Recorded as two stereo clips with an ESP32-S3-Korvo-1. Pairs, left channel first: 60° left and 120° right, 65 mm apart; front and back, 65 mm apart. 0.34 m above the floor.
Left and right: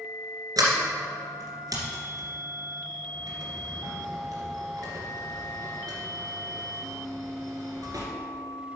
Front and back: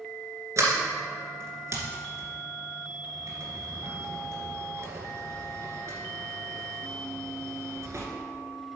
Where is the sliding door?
140° right, 2 m.